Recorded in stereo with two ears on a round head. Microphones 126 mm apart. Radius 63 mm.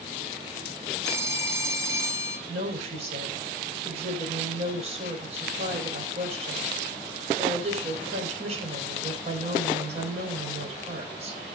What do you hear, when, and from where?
1.1 s a phone ringing: 20° right (ahead or behind), 4.5 m
2.5 s a woman speaking: 50° right (ahead or behind), 5.5 m